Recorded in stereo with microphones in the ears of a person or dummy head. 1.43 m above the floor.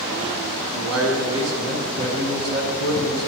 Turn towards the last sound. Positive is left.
turn(degrees=-80)